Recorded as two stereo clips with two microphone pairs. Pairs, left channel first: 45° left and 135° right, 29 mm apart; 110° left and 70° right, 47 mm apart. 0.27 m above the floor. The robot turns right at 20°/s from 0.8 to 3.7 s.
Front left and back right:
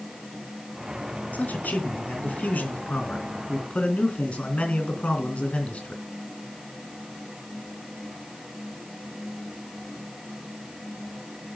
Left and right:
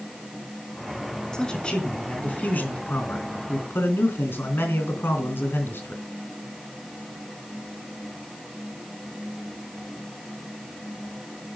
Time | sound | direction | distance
1.3 | a man speaking | 35° left | 3.5 m